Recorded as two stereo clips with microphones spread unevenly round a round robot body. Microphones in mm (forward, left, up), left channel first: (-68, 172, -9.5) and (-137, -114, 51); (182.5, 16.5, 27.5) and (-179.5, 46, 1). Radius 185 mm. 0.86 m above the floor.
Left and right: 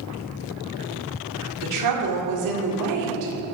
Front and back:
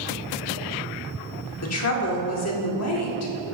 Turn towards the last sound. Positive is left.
turn(degrees=-60)